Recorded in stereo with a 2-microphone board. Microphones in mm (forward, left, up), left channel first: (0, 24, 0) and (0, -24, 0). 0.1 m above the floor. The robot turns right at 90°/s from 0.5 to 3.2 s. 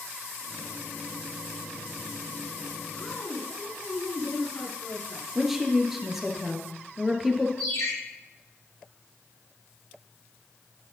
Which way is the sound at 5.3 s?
5° right (ahead or behind).